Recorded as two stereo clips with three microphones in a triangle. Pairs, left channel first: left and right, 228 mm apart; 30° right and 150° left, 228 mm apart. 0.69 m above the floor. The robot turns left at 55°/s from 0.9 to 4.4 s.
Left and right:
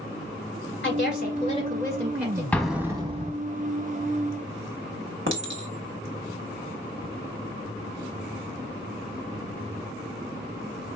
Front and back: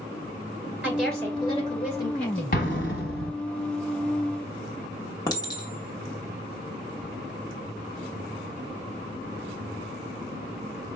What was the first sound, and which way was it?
A woman speaking, 70° left.